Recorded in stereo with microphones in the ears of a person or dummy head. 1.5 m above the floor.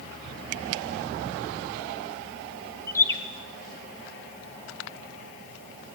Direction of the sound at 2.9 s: 15° left (ahead or behind).